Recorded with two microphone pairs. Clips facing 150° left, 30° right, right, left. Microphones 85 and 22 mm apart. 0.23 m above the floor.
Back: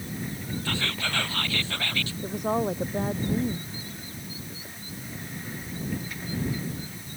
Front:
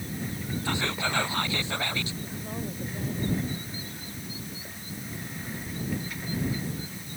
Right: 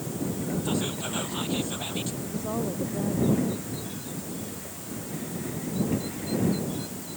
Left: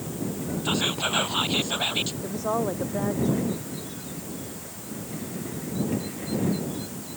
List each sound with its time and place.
0.7 s whispering: 40° left
2.2 s a woman speaking: 135° left